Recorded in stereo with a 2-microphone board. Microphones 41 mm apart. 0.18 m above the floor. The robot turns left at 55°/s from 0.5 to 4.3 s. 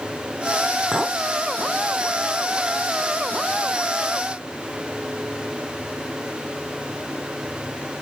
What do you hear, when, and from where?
0.9 s a clink: 5° left (ahead or behind), 0.6 m; by 1.2 s 10° left (ahead or behind), 0.6 m